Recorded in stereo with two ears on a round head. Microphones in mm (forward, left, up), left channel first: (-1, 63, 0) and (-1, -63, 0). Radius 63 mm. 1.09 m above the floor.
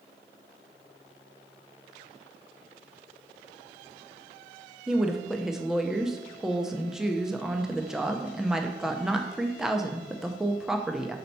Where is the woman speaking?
Centre (ahead or behind), 0.5 m.